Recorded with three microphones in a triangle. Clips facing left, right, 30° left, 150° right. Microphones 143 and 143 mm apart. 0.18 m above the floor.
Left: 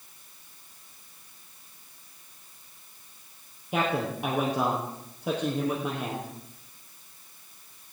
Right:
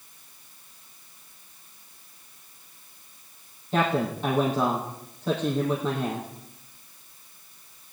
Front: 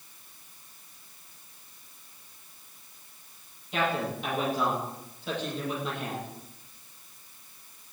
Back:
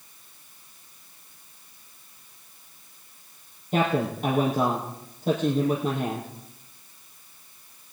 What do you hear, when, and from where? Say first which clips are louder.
3.7 s a man speaking: right 3 dB, back 5 dB; 170° left, 4.5 m